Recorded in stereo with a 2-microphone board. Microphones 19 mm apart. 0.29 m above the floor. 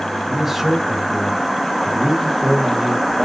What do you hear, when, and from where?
0.3 s a man speaking: 5° right (ahead or behind), 2.5 m